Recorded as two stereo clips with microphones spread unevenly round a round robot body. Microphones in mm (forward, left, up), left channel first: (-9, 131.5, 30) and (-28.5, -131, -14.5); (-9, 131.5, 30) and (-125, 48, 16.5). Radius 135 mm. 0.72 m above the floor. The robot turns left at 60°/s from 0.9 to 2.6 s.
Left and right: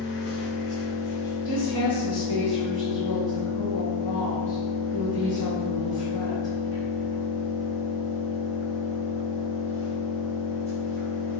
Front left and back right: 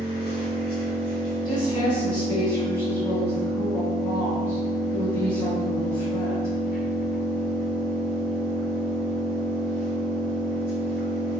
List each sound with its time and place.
0.0 s an engine running: 35° left, 1.1 m; by 11.4 s 70° right, 1.1 m
1.4 s a woman speaking: 25° left, 1.8 m; by 6.5 s 45° right, 1.8 m